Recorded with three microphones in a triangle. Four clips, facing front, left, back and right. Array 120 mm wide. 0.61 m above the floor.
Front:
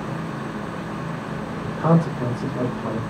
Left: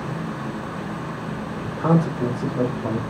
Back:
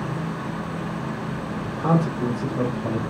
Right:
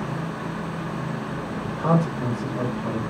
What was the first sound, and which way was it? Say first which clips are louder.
A man speaking: left 2 dB, front 2 dB; 10° left.